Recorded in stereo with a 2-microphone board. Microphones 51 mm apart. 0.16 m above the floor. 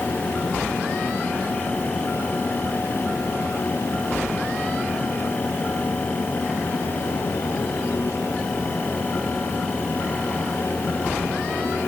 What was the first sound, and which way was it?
Only background noise.